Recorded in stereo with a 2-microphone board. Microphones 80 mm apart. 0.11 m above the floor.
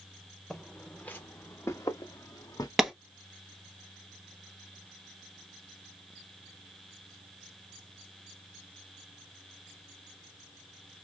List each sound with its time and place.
0.5 s footsteps: 10° left (ahead or behind), 1.2 m; by 2.7 s 55° left (ahead or behind), 1.6 m
2.8 s a clap: 5° right (ahead or behind), 1.0 m